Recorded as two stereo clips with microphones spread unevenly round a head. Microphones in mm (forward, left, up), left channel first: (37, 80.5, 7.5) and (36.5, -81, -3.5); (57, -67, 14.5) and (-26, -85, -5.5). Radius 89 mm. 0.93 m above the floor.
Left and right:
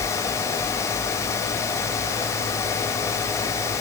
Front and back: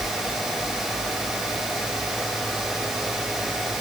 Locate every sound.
Only background noise.